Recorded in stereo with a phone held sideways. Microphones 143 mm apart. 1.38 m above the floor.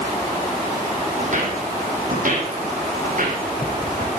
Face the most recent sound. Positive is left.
turn(degrees=-70)  # may be behind; listen again after turning